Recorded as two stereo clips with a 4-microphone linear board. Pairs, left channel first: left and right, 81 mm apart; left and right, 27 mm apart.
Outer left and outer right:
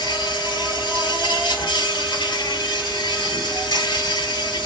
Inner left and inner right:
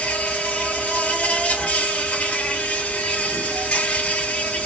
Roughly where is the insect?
Left.